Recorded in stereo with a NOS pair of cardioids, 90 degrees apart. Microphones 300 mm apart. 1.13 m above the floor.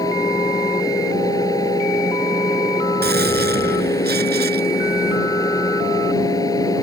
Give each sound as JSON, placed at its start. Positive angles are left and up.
{"t": 0.0, "sound": "a fan", "azimuth_deg": 10}
{"t": 3.0, "sound": "a gunshot", "azimuth_deg": -30}